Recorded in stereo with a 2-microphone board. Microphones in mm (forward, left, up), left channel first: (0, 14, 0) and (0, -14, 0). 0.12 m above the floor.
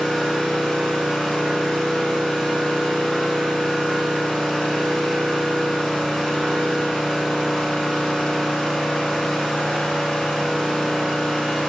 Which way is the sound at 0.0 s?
20° left (ahead or behind).